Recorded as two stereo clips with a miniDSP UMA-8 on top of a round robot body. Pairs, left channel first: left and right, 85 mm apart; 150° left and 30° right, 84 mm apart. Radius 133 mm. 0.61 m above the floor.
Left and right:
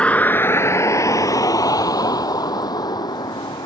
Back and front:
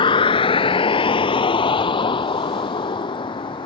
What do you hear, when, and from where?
0.0 s a vehicle: 170° left; by 3.7 s 130° left